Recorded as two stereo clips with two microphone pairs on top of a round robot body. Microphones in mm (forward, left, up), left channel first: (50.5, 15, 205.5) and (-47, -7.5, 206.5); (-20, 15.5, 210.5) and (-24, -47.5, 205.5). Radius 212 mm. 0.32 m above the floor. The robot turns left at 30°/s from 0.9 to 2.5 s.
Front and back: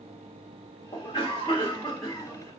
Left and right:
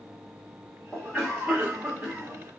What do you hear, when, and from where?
0.9 s a cough: straight ahead, 1.4 m; by 2.5 s 50° right, 1.4 m